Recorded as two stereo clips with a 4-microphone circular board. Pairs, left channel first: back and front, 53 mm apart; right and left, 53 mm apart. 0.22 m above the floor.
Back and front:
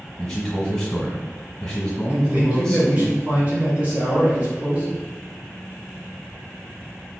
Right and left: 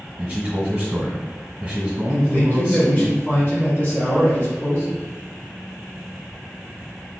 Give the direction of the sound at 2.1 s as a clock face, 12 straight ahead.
2 o'clock.